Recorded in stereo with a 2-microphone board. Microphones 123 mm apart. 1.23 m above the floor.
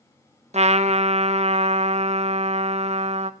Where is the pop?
I don't hear a pop.